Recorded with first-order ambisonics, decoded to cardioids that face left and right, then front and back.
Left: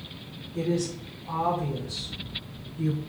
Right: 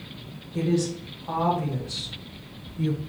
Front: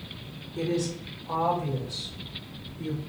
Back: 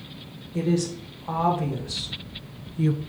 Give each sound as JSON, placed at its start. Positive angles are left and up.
{"t": 0.5, "sound": "a woman speaking", "azimuth_deg": -155, "distance_m": 2.0}